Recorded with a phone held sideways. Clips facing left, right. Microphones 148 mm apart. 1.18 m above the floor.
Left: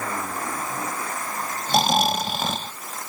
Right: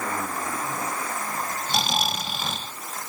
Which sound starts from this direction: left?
Snoring, at 1.7 s.